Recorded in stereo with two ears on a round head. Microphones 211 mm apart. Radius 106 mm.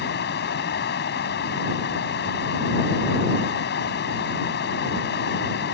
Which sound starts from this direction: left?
Running water, at 0.0 s.